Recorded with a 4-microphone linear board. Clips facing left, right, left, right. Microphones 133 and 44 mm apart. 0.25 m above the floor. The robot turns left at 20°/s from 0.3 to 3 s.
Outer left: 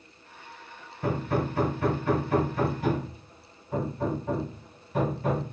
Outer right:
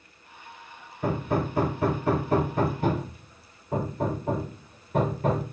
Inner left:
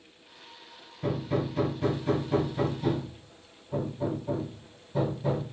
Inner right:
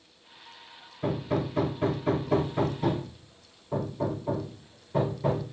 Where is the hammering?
15° right (ahead or behind), 3 m; by 5.4 s 55° right (ahead or behind), 3 m.